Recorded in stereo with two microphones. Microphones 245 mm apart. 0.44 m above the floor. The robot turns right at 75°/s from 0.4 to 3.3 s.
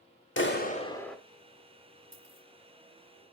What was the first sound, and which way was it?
A clap, 125° left.